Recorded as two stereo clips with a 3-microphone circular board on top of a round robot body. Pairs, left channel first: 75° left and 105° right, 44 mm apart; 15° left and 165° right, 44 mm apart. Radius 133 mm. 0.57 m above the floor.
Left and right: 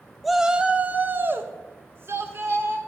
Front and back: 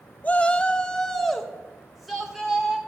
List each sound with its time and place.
0.2 s a shout: 15° right, 0.6 m; by 2.8 s 80° right, 2 m